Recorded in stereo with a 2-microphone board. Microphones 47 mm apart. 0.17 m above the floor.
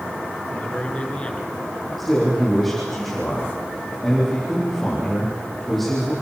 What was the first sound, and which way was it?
A man speaking, 25° left (ahead or behind).